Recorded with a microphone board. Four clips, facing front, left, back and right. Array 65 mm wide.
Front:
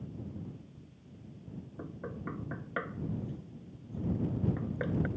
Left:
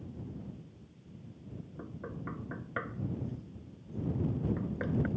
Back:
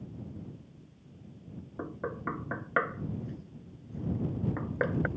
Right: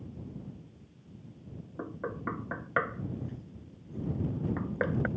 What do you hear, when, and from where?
1.8 s knocking: 145° right